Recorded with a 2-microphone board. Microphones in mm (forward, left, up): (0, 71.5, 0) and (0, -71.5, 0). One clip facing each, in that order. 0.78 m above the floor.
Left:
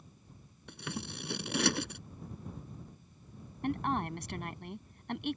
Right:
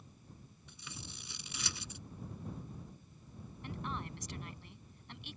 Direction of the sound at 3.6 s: 65° left (ahead or behind).